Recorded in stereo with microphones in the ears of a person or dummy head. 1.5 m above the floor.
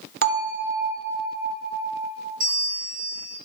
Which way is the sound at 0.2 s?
50° right (ahead or behind).